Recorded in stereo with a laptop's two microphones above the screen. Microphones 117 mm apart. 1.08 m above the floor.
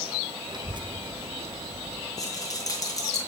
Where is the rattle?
30° left (ahead or behind), 3 m.